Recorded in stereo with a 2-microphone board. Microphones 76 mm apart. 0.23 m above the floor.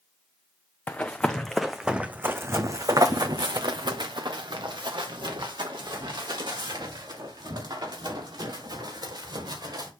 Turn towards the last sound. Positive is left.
turn(degrees=-70)  # may be behind; listen again after turning